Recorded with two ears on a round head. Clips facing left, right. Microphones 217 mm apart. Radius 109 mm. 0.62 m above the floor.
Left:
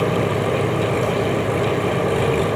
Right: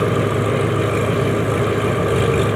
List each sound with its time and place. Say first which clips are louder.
0.0 s an engine running: right 1 dB; 20° right (ahead or behind)